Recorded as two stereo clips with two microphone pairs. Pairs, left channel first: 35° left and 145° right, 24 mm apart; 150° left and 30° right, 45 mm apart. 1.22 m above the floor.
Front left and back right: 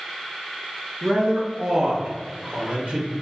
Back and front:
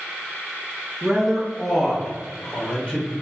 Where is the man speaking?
95° right, 0.6 m; by 3.1 s 170° right, 1.1 m.